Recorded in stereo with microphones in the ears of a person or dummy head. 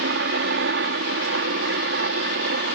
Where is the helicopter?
60° right (ahead or behind); by 2.8 s 55° right (ahead or behind).